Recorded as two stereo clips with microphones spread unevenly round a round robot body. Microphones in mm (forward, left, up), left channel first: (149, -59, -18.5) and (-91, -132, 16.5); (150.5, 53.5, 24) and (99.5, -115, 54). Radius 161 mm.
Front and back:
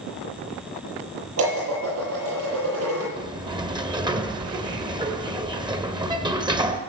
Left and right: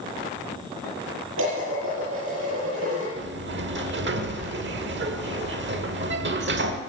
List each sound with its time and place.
1.4 s dishes clattering: 135° right, 9 m
3.2 s a sliding door: 85° right, 1.6 m